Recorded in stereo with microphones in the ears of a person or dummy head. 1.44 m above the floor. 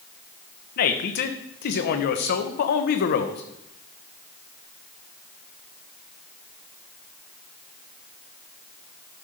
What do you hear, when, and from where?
0.8 s a man speaking: 50° left (ahead or behind), 1.0 m